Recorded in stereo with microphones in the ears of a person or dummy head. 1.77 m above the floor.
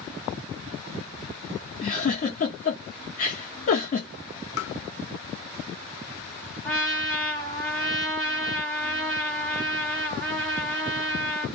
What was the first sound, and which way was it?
A giggle, 45° left (ahead or behind).